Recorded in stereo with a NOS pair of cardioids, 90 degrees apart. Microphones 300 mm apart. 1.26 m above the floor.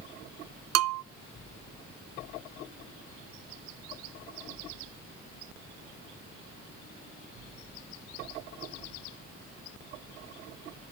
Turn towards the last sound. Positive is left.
turn(degrees=-60)